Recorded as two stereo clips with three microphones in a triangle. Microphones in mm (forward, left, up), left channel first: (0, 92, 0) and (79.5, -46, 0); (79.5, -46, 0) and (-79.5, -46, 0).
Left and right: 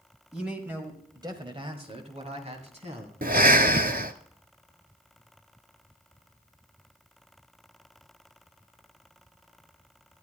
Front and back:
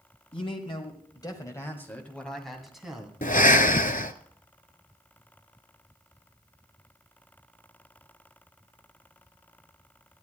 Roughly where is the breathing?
Ahead right.